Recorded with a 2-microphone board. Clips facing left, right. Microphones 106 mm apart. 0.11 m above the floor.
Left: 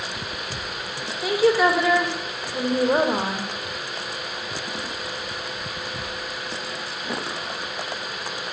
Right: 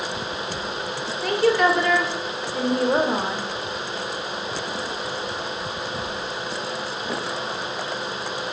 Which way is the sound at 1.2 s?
5° left (ahead or behind).